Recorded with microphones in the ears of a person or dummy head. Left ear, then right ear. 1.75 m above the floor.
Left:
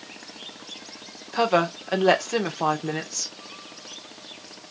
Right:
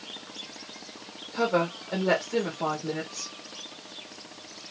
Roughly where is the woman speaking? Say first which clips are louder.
Left 4 dB; left.